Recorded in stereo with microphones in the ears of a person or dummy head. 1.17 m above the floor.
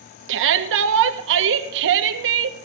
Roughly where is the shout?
Right.